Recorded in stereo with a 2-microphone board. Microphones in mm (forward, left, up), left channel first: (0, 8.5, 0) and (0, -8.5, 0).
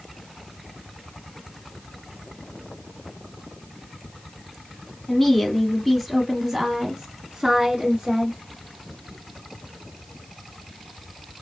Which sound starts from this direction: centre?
A woman speaking, at 5.1 s.